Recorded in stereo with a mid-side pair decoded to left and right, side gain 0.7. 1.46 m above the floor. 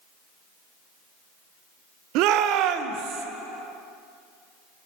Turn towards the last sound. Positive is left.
turn(degrees=-55)